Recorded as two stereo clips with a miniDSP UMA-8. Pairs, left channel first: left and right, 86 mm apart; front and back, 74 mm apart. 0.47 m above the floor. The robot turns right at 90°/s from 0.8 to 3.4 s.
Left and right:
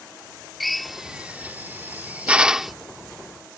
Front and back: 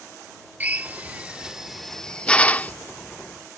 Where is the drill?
Straight behind; by 2.7 s 5° right.